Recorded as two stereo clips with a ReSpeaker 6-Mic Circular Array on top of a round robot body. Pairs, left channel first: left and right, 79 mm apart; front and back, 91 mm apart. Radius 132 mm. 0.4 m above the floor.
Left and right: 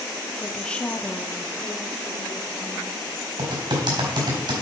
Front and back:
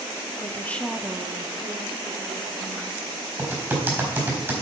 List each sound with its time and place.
0.4 s a woman speaking: 15° left, 1.2 m; by 3.3 s 170° left, 3.5 m
3.4 s typing on a keyboard: 110° right, 4 m